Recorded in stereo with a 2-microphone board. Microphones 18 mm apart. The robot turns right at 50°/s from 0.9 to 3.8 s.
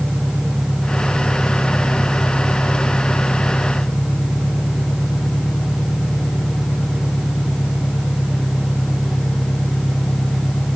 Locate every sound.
0.0 s an engine running: 80° right; by 10.8 s 65° left